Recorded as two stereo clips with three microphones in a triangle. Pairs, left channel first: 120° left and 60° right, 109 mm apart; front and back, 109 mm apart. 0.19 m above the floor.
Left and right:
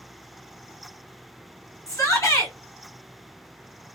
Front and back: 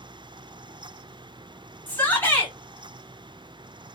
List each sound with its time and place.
1.9 s a shout: 65° left, 2.0 m